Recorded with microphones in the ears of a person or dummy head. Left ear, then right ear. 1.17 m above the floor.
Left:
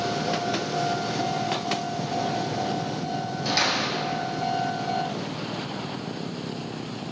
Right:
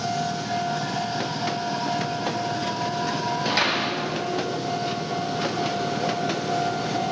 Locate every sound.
3.5 s a door slam: 10° right (ahead or behind), 1.9 m